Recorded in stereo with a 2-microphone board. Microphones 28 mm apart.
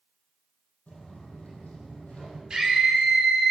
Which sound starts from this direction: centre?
A scream, at 2.5 s.